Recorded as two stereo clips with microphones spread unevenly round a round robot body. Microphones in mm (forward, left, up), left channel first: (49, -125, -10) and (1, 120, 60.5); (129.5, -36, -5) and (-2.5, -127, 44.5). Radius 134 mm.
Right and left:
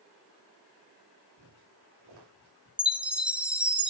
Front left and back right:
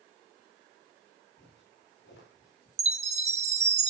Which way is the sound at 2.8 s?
130° right.